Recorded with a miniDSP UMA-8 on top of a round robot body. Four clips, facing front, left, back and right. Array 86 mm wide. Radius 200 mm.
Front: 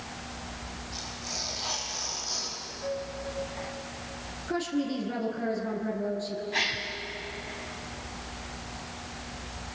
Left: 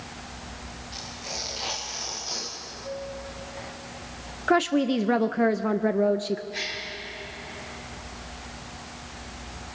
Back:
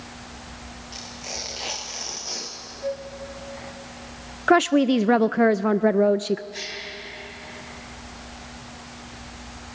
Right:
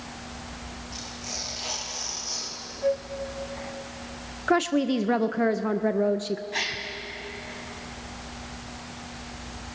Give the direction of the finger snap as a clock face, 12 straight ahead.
No finger snap in this recording.